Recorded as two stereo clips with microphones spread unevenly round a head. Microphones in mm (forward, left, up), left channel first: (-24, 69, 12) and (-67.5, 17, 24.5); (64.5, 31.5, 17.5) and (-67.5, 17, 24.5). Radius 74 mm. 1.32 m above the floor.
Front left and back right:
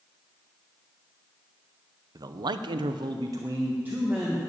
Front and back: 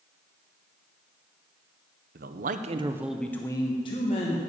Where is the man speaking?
165° right, 0.8 m; by 4.4 s 45° right, 1.5 m.